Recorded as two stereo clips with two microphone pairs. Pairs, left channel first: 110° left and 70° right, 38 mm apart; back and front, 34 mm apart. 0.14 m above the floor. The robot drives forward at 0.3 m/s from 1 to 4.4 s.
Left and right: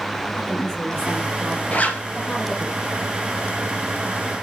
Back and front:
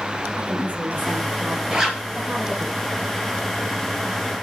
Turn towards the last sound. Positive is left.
turn(degrees=85)